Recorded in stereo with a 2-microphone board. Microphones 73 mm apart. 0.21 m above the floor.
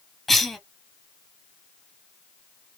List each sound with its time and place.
0.3 s a cough: centre (ahead or behind), 1.1 m